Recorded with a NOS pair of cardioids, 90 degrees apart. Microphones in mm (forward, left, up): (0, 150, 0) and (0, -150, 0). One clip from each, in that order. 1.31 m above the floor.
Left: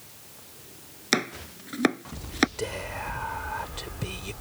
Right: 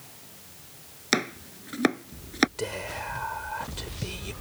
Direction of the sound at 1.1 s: 5° left.